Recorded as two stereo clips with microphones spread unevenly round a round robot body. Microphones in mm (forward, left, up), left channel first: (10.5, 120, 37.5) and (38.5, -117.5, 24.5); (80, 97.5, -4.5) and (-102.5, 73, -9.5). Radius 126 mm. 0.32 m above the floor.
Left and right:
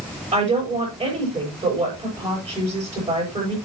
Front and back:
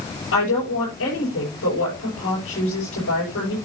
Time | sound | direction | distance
0.3 | a woman speaking | 10° right | 8 m